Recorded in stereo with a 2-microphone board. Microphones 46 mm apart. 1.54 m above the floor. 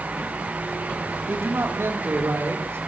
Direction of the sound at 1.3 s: 70° right (ahead or behind).